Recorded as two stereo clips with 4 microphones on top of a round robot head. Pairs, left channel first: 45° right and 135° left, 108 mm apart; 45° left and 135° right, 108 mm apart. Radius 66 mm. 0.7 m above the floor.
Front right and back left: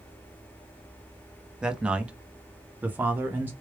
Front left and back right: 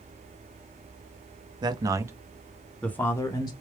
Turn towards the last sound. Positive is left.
turn(degrees=70)